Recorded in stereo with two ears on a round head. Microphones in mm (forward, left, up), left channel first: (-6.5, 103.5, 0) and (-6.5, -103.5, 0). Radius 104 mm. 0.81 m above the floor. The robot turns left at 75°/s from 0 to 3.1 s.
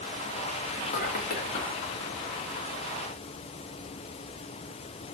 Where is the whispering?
150° left, 0.9 m; by 1.8 s 65° left, 0.9 m.